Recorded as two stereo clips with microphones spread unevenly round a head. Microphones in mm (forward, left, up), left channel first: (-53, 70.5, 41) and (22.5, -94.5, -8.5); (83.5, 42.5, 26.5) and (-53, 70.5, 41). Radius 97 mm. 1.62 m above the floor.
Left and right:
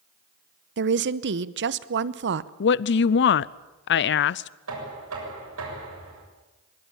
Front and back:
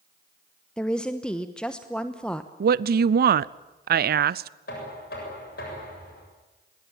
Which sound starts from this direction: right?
A woman speaking, at 0.8 s.